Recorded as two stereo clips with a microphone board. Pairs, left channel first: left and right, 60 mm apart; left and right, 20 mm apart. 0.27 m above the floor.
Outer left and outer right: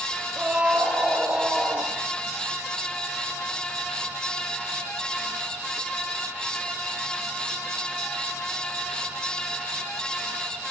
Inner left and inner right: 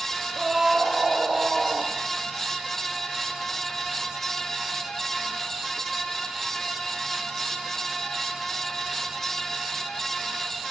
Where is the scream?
15° right (ahead or behind), 6 m; by 1.9 s 10° right (ahead or behind), 6 m.